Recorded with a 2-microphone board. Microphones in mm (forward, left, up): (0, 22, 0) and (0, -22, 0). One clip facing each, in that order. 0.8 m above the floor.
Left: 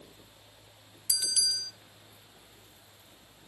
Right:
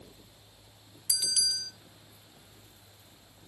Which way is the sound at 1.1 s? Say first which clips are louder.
Even; 5° left (ahead or behind).